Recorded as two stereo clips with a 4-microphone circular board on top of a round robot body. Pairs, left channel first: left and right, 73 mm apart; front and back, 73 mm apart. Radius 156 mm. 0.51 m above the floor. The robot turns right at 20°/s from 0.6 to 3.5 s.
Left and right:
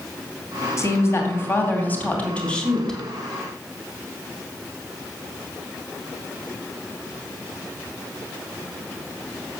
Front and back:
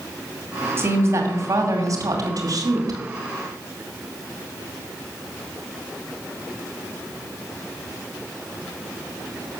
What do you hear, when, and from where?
0.8 s a woman speaking: 130° left, 2.5 m; by 3.0 s 175° left, 2.5 m